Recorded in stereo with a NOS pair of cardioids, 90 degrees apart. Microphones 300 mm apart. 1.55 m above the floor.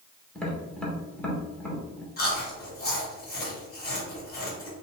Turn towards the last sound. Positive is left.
turn(degrees=30)